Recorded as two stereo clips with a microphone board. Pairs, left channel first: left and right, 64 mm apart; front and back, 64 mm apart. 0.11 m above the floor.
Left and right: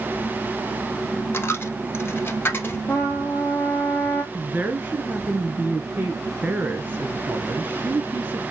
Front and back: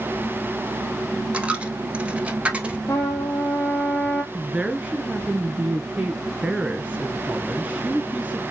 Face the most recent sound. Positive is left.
turn(degrees=-115)